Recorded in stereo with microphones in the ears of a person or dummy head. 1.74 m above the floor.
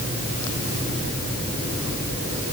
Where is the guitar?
No guitar in this recording.